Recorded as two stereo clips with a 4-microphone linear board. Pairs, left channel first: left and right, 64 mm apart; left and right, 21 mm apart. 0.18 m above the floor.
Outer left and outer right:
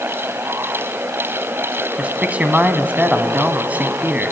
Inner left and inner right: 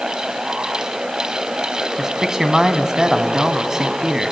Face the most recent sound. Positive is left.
turn(degrees=-25)  # may be behind; listen again after turning